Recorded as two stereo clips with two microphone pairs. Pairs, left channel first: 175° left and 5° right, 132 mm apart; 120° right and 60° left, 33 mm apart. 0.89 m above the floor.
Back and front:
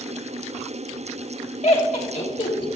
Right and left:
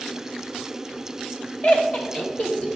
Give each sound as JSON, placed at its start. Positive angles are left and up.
{"t": 1.6, "sound": "laughter", "azimuth_deg": -155, "distance_m": 1.4}